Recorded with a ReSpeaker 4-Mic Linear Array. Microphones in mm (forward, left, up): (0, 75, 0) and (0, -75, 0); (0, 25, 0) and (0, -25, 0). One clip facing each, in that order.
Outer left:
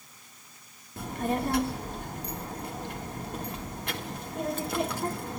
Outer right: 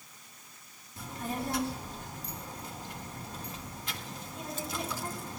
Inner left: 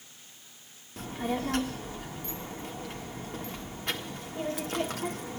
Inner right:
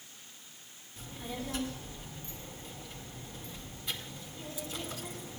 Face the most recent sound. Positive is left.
turn(degrees=60)  # may be behind; listen again after turning